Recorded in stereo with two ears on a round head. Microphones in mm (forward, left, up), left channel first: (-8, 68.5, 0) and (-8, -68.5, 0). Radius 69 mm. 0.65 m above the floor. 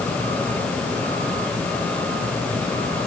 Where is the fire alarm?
No fire alarm in this recording.